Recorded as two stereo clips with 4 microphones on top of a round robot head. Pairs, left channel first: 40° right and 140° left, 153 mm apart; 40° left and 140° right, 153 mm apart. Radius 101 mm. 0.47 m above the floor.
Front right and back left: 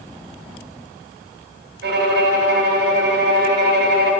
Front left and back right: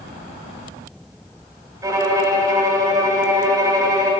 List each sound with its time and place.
1.8 s a violin: 150° left, 1.0 m